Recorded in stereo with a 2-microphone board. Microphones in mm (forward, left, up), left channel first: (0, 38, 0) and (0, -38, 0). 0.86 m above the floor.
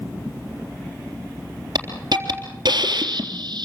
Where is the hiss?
65° right (ahead or behind), 3.5 m.